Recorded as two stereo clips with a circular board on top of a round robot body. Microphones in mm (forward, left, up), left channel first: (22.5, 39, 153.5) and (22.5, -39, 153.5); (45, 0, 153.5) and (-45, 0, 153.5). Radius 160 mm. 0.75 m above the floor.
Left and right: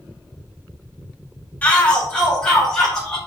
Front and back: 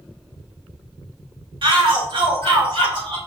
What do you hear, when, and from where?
1.6 s a shout: 160° left, 2 m; by 3.2 s 175° left, 4.5 m